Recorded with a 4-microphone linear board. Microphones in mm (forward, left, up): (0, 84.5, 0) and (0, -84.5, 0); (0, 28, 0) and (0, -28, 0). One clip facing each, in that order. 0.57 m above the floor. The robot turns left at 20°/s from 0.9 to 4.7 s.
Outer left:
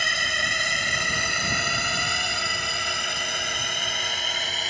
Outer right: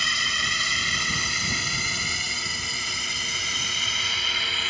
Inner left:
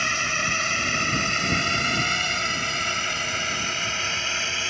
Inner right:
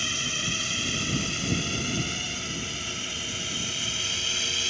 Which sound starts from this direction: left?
A drone, at 0.0 s.